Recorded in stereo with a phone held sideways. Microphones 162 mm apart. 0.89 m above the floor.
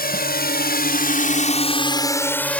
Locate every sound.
0.0 s a drone: 65° left (ahead or behind); by 2.6 s 5° left (ahead or behind)